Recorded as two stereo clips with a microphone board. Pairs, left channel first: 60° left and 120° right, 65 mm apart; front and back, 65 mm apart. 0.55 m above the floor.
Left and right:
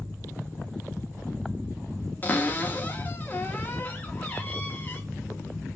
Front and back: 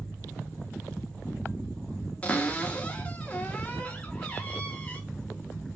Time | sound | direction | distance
2.2 | a cupboard door | 45° left | 0.8 m